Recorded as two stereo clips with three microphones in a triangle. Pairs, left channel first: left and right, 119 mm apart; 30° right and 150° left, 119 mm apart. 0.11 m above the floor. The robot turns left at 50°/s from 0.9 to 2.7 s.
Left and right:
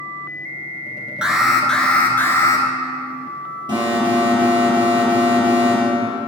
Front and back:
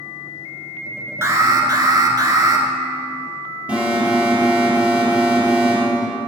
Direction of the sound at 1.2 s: 165° right.